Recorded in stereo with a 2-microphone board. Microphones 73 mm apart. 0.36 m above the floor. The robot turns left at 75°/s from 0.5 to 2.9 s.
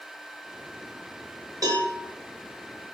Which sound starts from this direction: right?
A cowbell, at 1.6 s.